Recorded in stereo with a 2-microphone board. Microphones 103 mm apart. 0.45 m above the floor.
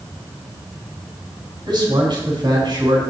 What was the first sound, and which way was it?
A man speaking, 50° right (ahead or behind).